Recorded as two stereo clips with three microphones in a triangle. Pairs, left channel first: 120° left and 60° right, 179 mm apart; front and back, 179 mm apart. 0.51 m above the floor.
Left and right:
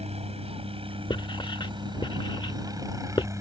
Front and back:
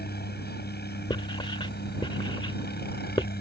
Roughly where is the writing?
Ahead left.